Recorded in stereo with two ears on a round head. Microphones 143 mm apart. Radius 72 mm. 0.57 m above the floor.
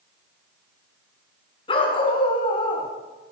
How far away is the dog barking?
About 2.5 m.